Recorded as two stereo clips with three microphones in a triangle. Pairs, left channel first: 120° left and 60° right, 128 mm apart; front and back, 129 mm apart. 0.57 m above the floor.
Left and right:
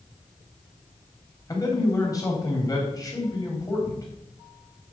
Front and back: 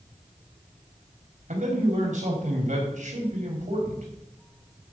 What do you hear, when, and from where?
1.5 s a man speaking: straight behind, 3.5 m